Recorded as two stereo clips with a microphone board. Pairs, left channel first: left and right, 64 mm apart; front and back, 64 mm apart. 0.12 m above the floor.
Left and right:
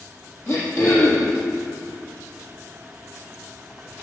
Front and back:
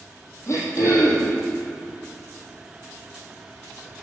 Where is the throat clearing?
40° left, 4.5 m.